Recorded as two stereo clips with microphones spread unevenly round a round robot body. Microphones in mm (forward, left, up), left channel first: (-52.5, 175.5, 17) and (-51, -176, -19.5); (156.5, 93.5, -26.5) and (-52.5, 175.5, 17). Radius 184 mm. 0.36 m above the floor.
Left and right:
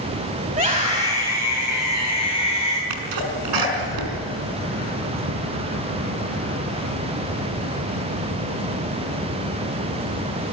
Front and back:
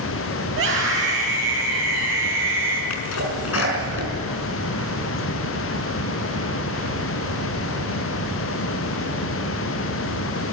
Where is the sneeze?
60° right, 4.5 m.